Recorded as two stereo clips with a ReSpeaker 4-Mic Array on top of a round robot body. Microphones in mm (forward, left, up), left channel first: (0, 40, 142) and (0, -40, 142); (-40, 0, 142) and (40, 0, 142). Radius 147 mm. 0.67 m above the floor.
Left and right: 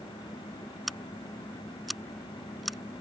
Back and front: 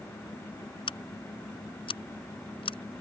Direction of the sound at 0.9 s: Straight behind.